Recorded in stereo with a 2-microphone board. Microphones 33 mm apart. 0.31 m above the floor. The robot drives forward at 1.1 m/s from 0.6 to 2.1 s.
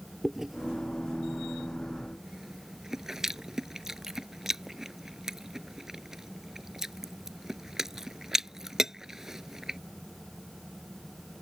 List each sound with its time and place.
0.2 s chewing: 5° right (ahead or behind); by 9.8 s 10° right (ahead or behind)